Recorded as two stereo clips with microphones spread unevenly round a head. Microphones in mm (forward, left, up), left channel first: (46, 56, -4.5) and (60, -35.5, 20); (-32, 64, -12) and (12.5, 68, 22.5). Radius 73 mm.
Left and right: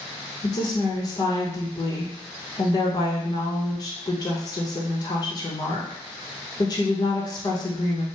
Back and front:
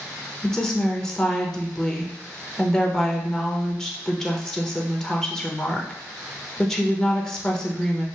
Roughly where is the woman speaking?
Behind left.